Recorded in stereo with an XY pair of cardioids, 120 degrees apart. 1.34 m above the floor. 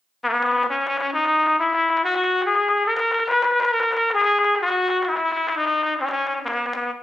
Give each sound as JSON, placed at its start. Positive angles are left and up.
{"t": 0.2, "sound": "a trumpet", "azimuth_deg": 10, "distance_m": 0.7}